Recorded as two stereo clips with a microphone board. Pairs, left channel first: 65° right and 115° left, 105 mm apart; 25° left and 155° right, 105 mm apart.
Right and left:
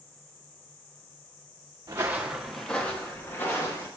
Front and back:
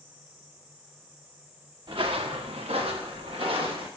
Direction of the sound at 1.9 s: 165° left.